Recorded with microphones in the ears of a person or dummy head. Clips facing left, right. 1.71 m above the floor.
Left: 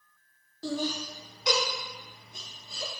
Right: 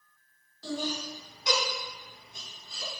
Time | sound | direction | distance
0.6 | laughter | 45° left (ahead or behind) | 1.1 m